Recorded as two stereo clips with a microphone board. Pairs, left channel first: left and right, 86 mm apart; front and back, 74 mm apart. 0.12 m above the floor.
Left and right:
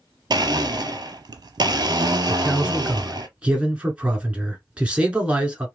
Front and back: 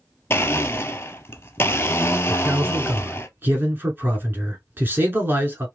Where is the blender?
60° right, 0.6 m.